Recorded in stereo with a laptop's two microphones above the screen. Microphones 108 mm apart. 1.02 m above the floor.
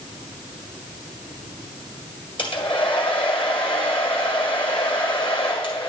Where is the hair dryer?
50° left (ahead or behind), 1.7 m.